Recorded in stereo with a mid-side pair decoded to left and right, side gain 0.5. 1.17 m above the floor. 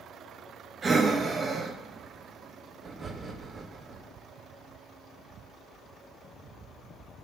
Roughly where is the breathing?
Ahead right.